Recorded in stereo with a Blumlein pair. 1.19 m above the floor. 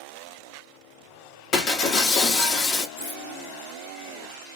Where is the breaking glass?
30° left, 1.2 m.